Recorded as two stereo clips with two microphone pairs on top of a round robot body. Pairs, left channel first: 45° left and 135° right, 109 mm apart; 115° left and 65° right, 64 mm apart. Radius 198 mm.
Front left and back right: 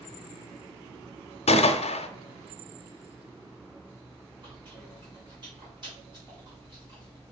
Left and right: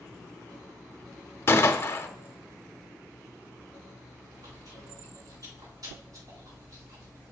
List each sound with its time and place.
1.5 s a gunshot: 65° left, 0.7 m
4.4 s chewing: 85° right, 4 m